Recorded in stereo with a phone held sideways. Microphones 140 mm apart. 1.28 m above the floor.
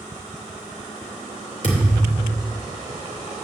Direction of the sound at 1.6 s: 60° left (ahead or behind).